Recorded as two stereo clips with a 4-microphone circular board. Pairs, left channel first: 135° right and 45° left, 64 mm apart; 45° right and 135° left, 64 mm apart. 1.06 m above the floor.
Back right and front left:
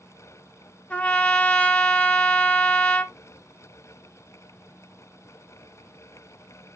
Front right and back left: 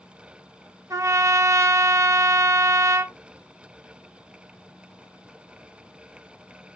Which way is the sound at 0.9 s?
160° left.